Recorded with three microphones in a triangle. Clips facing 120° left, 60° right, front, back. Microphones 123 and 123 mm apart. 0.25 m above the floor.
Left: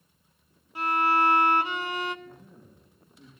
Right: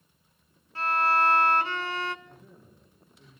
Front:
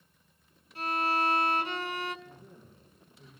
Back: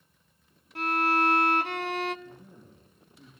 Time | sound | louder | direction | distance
0.8 | a violin | left 1 dB, back 4 dB | 165° right | 0.7 m
2.2 | a man speaking | left 3 dB, back 3 dB | 170° left | 4.5 m